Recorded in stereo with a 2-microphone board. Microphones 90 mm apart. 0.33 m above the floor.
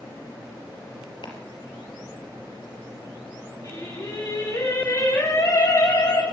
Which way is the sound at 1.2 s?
60° left (ahead or behind).